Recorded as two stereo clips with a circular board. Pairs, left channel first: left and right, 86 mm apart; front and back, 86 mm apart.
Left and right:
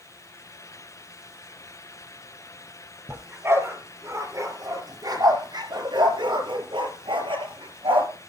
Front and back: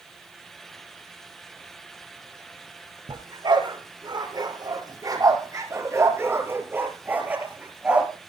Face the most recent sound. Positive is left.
turn(degrees=-100)